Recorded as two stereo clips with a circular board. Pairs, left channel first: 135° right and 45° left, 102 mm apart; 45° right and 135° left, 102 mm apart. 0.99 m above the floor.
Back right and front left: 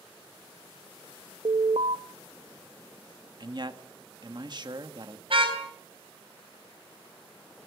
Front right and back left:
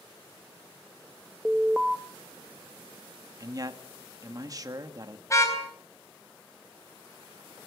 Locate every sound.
1.4 s an alarm: 50° left, 0.6 m
3.4 s a man speaking: 85° left, 1.8 m
5.3 s a car horn: 15° left, 4 m